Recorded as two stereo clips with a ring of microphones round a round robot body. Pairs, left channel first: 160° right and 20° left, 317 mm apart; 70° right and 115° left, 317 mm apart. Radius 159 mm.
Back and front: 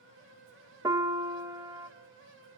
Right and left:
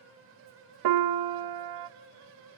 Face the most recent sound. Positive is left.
turn(degrees=100)